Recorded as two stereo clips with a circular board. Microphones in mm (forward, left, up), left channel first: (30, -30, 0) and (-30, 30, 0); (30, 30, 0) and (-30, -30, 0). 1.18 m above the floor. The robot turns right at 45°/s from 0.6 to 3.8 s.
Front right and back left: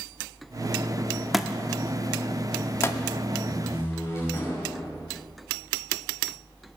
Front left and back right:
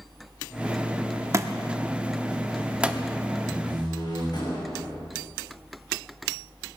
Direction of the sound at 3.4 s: 5° right.